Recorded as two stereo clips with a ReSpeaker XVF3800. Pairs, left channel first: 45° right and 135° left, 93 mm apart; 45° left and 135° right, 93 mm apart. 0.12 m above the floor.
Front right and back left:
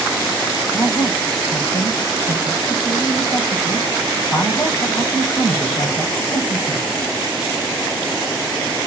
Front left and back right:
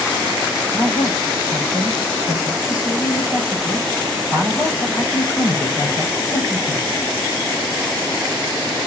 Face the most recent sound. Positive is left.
turn(degrees=-15)